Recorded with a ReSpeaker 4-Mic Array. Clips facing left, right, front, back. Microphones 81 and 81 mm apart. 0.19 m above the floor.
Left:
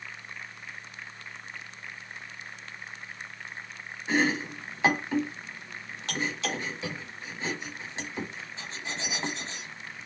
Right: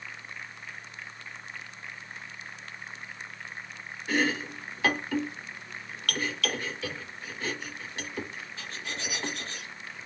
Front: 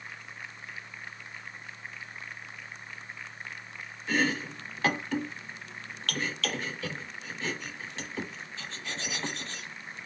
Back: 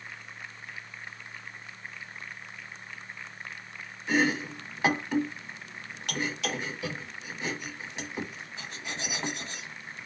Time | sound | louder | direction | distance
4.1 | chopping | left 2 dB, back 2 dB | 125° left | 1.0 m